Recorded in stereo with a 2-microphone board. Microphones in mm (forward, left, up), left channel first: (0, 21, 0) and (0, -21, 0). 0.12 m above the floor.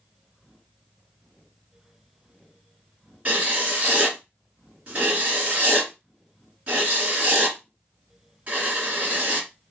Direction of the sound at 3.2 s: 30° right (ahead or behind).